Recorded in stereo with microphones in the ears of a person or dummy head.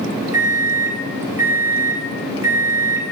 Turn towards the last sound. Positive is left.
turn(degrees=-15)  # may be behind; listen again after turning